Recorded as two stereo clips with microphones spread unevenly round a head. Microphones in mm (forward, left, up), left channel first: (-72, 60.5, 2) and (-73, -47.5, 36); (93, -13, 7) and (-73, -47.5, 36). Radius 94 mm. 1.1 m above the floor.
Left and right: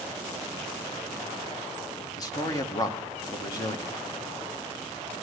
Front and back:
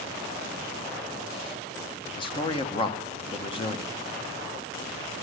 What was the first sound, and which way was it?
A man speaking, 60° left.